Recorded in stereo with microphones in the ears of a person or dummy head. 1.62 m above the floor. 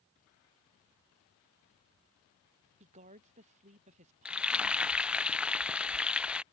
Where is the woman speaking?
35° right (ahead or behind).